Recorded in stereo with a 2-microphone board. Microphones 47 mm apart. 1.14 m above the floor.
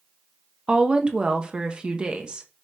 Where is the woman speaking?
20° right (ahead or behind), 0.6 m.